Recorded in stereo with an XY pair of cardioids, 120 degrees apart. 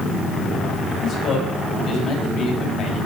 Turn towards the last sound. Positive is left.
turn(degrees=60)